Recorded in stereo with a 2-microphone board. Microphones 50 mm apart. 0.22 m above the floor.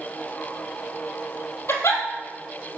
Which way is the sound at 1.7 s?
70° left (ahead or behind).